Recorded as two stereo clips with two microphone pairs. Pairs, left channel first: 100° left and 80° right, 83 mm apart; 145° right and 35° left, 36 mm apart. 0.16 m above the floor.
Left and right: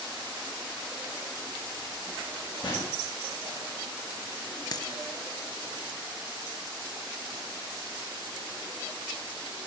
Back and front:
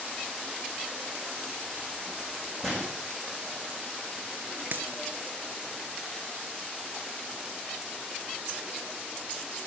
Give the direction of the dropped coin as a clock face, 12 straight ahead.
10 o'clock.